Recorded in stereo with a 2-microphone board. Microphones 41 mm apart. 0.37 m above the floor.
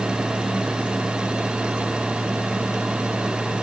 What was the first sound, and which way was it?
Only background noise.